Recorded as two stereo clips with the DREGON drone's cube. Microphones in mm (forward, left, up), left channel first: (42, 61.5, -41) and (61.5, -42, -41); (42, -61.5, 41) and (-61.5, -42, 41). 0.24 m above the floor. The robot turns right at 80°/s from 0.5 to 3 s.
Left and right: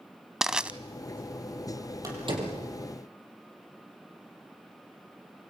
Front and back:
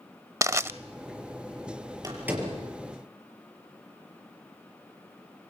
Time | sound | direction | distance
0.4 | crushing | 160° right | 0.6 m
2.0 | a door slam | 135° right | 5.5 m